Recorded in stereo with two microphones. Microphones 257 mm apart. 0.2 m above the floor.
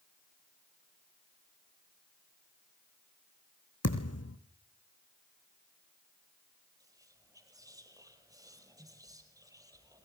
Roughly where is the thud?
Left.